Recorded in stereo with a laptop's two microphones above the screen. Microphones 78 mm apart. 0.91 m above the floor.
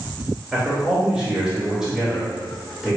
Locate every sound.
0.5 s a man speaking: 10° right (ahead or behind), 3 m